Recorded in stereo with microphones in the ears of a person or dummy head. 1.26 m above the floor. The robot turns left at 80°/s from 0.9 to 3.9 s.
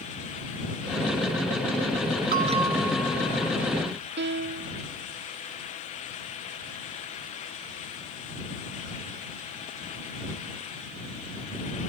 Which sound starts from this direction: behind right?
A bell, at 2.3 s.